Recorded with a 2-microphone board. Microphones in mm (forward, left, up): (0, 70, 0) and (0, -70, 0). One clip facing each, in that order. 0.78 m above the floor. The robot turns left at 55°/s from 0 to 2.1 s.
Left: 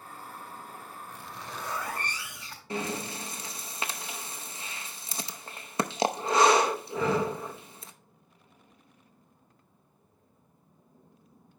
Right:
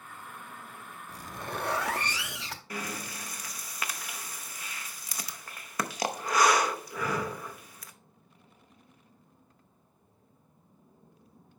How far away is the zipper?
About 0.7 m.